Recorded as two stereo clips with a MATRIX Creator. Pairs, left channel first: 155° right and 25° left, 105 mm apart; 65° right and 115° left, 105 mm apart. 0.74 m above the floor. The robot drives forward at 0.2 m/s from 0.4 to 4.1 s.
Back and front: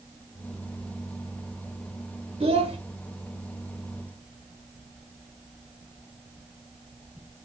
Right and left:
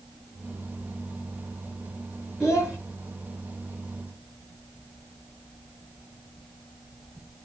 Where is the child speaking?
25° left, 1.0 m; by 2.8 s 30° left, 1.0 m.